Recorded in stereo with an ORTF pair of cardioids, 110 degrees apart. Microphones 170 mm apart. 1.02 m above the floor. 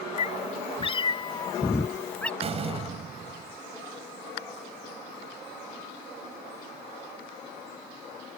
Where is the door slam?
35° right.